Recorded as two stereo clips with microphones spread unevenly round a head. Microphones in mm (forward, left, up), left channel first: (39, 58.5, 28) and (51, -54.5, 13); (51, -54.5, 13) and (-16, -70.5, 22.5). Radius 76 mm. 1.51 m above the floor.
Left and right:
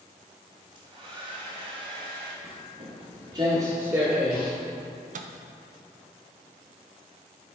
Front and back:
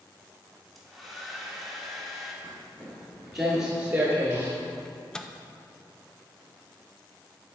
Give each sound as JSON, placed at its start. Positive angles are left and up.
{"t": 0.8, "sound": "a hair dryer", "azimuth_deg": -95, "distance_m": 1.2}
{"t": 2.4, "sound": "footsteps", "azimuth_deg": -70, "distance_m": 1.9}
{"t": 4.8, "sound": "a microwave", "azimuth_deg": -70, "distance_m": 0.6}